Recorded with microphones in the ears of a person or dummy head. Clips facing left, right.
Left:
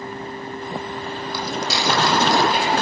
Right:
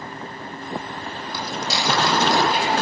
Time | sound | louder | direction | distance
1.3 | footsteps | left 1 dB | 60° left (ahead or behind) | 3.5 m